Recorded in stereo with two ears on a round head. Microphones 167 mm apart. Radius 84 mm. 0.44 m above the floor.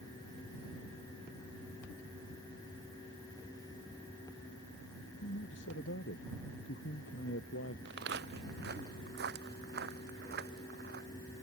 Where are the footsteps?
60° right (ahead or behind); by 11.1 s 55° right (ahead or behind).